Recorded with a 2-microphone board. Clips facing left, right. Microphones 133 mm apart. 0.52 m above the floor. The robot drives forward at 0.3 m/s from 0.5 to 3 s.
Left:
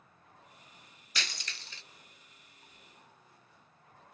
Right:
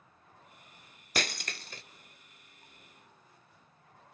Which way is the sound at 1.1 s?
50° right (ahead or behind).